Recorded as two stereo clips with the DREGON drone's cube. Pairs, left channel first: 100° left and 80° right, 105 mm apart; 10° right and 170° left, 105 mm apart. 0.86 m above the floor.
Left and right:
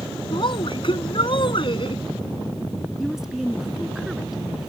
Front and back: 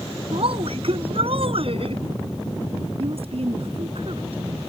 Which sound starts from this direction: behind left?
A woman speaking, at 0.3 s.